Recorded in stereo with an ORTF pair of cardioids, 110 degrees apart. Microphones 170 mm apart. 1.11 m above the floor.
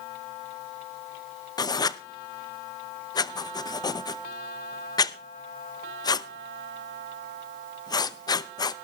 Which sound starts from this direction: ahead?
Writing, at 1.6 s.